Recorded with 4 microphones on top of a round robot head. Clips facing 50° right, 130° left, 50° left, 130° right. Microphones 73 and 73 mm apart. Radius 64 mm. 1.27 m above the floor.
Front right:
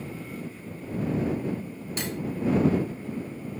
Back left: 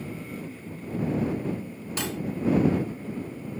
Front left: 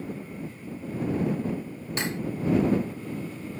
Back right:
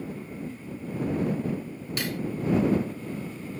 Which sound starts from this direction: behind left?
Cutlery clinking, at 2.0 s.